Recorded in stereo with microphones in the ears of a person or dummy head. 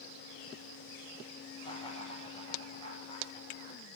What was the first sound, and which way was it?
Laughter, 30° left (ahead or behind).